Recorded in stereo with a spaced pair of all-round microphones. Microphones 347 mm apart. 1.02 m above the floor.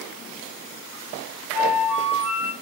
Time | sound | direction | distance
1.5 | a flute | 5° right (ahead or behind) | 1.2 m